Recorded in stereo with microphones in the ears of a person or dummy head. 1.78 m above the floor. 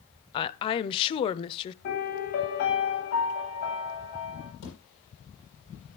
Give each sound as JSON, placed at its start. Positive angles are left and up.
{"t": 0.3, "sound": "a woman speaking", "side_deg": 30, "distance_m": 0.8}
{"t": 1.8, "sound": "a piano", "side_deg": 55, "distance_m": 9.0}
{"t": 4.6, "sound": "a thud", "side_deg": 60, "distance_m": 10.0}